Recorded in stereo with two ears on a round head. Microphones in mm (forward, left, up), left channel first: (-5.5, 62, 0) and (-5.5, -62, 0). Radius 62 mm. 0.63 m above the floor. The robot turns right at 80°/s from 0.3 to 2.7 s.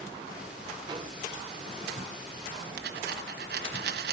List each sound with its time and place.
0.8 s a microwave: 25° right (ahead or behind), 2.0 m; by 1.2 s 50° right (ahead or behind), 2.0 m
2.8 s a dropped coin: 80° right, 1.5 m